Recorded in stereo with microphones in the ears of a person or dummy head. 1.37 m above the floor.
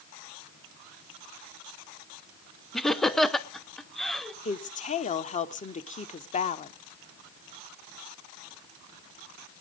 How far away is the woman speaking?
About 0.9 m.